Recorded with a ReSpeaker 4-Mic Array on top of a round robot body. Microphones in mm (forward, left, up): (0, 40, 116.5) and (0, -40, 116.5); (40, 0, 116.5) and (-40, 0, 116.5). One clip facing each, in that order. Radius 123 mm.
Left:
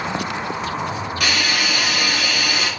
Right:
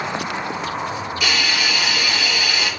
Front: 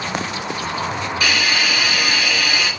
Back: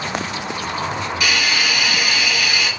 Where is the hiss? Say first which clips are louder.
Left 1 dB, front 1 dB; 60° left, 4.5 m.